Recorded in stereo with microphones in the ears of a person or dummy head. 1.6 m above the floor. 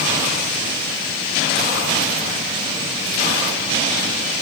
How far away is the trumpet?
I don't hear a trumpet.